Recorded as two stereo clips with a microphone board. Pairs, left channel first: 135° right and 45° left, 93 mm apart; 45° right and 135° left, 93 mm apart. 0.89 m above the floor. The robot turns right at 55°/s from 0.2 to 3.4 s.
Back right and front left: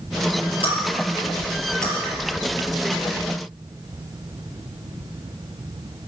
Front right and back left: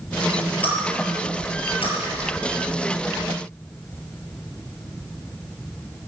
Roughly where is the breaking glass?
Behind right.